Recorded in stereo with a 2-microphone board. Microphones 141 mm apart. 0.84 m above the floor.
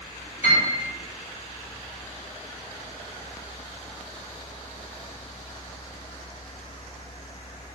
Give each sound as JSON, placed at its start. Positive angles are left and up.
{"t": 0.4, "sound": "a piano", "side_deg": 55, "distance_m": 1.3}